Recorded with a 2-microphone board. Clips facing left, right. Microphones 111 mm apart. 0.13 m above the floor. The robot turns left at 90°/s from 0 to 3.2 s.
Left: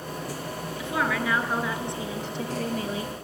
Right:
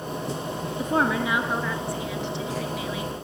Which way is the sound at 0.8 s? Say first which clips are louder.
Right 4 dB; 110° right.